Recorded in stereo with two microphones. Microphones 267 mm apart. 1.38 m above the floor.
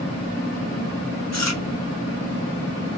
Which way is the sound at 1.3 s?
80° left.